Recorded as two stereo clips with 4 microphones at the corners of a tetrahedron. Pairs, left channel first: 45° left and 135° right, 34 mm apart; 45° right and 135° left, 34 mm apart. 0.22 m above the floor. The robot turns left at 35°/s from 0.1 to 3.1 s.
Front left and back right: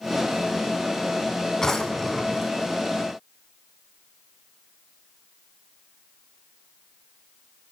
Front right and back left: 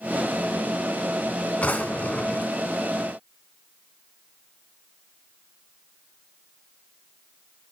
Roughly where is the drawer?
Ahead.